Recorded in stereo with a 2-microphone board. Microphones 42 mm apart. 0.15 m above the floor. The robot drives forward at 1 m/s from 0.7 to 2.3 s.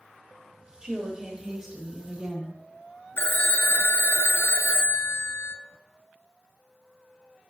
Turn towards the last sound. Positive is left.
turn(degrees=60)  # may be behind; listen again after turning